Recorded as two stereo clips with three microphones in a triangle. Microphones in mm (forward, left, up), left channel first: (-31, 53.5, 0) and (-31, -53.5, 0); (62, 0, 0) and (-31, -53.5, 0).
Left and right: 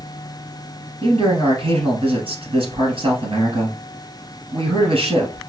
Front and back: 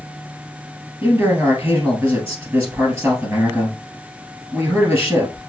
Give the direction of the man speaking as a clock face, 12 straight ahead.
3 o'clock.